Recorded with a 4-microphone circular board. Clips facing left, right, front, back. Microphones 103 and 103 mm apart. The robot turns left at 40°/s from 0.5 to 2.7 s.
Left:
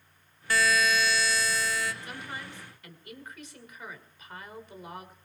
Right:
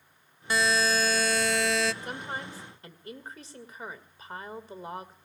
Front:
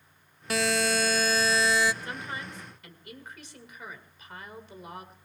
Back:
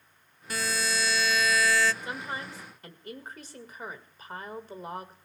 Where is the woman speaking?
110° right, 2.0 m; by 5.1 s 140° right, 2.0 m.